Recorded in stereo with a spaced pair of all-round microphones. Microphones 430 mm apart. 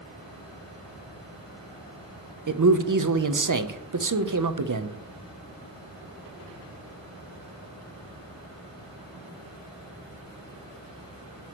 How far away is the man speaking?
About 0.7 m.